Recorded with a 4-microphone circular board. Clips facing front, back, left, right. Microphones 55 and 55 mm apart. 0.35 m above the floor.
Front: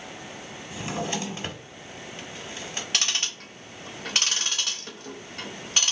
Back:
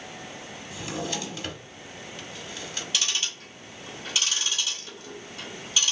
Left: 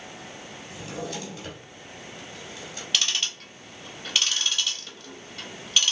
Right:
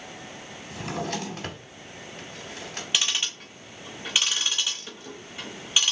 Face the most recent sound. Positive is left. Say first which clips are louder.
# front 1 dB, even
turn(degrees=-20)